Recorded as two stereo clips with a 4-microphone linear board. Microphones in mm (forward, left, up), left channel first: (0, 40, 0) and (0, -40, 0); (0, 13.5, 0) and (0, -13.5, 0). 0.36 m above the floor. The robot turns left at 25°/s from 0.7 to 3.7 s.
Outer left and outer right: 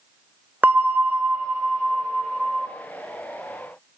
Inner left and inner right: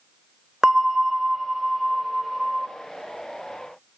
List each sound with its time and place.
0.6 s a bell: 20° right (ahead or behind), 1.4 m; by 2.7 s centre (ahead or behind), 1.4 m